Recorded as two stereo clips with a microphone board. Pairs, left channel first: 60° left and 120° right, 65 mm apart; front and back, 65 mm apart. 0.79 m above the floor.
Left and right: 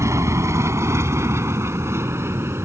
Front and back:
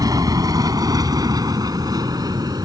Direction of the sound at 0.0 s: 160° right.